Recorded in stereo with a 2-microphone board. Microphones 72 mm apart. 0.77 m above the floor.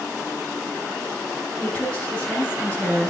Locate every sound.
1.6 s a woman speaking: 15° left (ahead or behind), 7.5 m